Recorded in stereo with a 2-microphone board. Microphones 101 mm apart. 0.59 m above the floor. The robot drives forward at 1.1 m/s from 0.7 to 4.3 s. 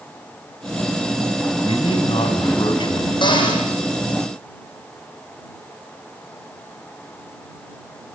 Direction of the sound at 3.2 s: 50° left (ahead or behind).